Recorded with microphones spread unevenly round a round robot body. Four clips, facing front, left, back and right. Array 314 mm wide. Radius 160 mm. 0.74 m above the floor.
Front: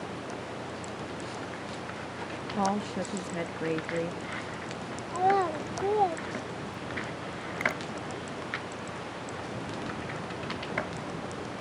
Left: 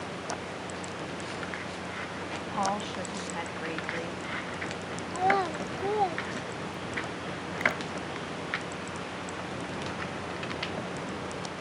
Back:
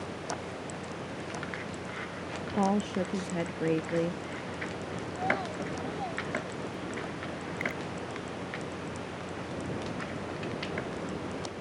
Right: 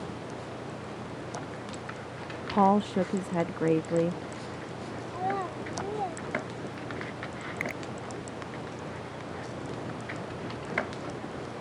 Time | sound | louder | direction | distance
2.5 | a woman speaking | right 8 dB, back 1 dB | 110° right | ?
5.1 | a child speaking | left 6 dB, front 8 dB | 20° left | ?
7.6 | a finger snap | left 7 dB, front 5 dB | 35° right | ?